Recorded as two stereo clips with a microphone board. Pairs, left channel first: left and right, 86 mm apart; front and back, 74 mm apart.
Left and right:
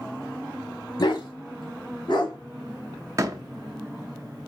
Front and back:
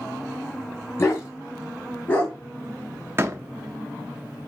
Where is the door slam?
130° right, 0.7 m.